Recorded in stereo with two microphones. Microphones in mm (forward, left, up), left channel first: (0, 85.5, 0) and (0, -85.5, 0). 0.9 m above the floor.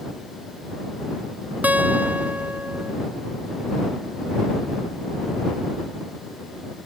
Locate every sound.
1.6 s a guitar: 10° right (ahead or behind)